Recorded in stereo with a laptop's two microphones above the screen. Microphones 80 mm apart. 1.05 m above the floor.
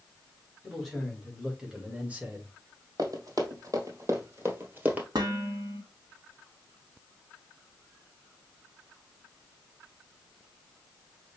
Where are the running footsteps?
60° right (ahead or behind), 2 m; by 5.0 s 20° right (ahead or behind), 1.3 m.